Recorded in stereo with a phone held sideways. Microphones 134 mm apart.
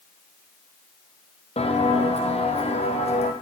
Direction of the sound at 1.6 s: 55° left (ahead or behind).